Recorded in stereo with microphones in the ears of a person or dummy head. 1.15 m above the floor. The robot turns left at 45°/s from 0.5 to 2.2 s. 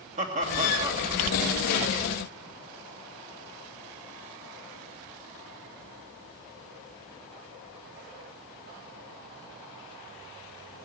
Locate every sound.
0.2 s laughter: 40° right (ahead or behind), 2.5 m; by 1.1 s 15° right (ahead or behind), 2.5 m